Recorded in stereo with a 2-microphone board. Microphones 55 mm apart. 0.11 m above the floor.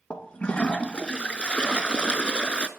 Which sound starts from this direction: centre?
A toilet flushing, at 0.1 s.